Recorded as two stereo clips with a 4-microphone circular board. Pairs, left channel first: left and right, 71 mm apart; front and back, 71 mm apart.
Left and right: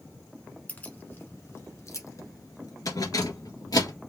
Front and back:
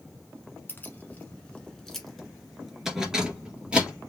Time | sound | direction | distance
0.7 | keys jangling | 35° left | 1.1 m